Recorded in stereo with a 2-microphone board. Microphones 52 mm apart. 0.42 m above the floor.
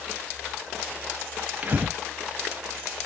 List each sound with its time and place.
1.6 s breathing: 35° right (ahead or behind), 0.7 m